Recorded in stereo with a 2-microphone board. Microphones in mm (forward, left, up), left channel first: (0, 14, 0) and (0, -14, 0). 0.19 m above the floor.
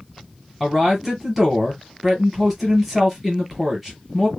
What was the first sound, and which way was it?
A man speaking, 5° right (ahead or behind).